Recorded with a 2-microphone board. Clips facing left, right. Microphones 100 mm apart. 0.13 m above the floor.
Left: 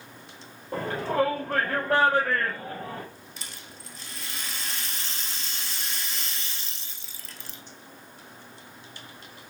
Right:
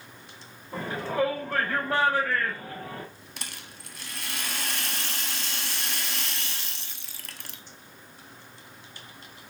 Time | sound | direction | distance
0.7 | a shout | 65° left (ahead or behind) | 3 m
3.4 | a rattle | 70° right (ahead or behind) | 0.5 m